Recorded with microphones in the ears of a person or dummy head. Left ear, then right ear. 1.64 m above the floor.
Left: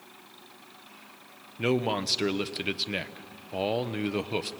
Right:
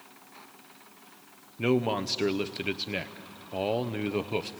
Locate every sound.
1.6 s a man speaking: 10° left (ahead or behind), 0.7 m